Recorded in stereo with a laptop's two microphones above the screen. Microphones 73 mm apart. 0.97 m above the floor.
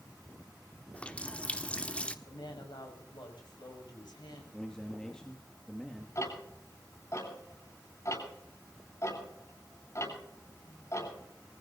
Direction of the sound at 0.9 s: 15° left (ahead or behind).